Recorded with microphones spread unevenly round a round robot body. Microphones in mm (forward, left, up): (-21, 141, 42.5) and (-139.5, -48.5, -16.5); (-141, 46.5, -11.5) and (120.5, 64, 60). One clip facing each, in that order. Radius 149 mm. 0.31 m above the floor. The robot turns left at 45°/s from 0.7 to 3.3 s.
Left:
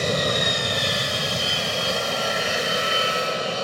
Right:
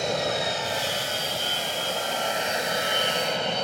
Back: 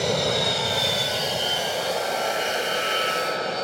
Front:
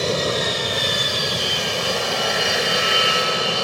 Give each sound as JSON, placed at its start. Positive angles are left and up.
{"t": 0.0, "sound": "an aircraft", "azimuth_deg": 90}